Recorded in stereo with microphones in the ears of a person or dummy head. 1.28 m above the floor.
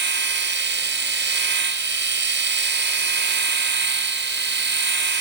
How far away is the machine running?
About 1.4 m.